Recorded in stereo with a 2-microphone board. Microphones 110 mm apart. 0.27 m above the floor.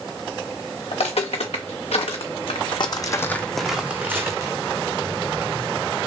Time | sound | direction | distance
0.9 | footsteps | 75° left (ahead or behind) | 1.3 m